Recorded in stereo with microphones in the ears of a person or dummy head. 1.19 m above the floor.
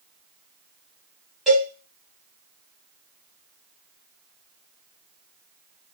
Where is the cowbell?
5° right (ahead or behind), 1.1 m.